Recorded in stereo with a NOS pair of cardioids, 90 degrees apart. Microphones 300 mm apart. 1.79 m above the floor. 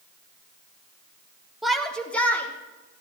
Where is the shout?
Straight ahead, 2 m; by 3.0 s 10° left, 4 m.